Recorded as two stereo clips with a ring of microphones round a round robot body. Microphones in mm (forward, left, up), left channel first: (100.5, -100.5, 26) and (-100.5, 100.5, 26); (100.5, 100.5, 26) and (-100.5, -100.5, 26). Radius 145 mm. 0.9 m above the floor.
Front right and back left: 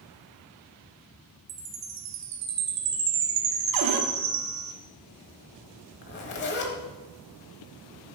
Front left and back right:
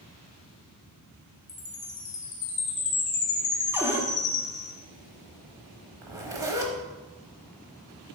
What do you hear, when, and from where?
1.5 s a chime: 110° left, 0.8 m
3.7 s a cupboard door: 145° left, 0.8 m
6.0 s a zipper: 60° right, 0.8 m